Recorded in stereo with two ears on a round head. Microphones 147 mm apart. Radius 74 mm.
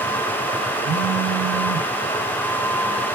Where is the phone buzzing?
50° right (ahead or behind), 1.4 m.